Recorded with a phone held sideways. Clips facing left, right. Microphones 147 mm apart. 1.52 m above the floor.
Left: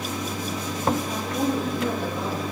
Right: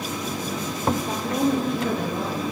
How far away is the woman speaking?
About 1.4 m.